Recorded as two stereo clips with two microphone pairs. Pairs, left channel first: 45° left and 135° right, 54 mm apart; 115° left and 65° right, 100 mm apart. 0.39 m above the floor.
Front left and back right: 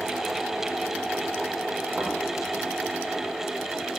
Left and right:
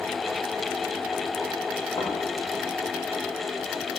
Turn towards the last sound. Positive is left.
turn(degrees=145)